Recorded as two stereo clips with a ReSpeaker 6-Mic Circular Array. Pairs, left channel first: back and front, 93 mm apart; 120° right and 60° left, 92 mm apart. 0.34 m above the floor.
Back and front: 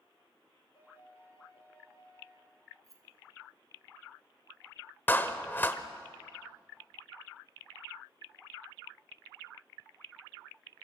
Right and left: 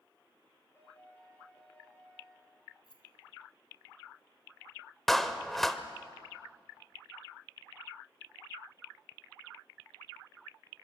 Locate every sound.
0.8 s a piano: 175° left, 8 m
2.8 s keys jangling: 50° left, 3.5 m
5.1 s a clap: 155° left, 1.0 m